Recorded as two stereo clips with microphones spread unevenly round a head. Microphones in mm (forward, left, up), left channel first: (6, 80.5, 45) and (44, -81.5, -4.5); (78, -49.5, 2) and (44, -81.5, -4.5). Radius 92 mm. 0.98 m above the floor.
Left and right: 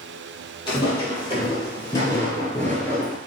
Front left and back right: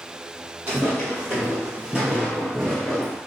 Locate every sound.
0.7 s footsteps: 155° left, 1.8 m; by 3.2 s 85° left, 1.0 m